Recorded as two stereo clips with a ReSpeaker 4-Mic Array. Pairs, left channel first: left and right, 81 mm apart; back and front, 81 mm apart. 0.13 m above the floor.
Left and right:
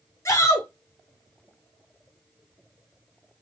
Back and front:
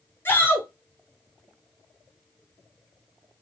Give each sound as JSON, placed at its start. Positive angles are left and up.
{"t": 0.2, "sound": "a shout", "azimuth_deg": 125, "distance_m": 2.5}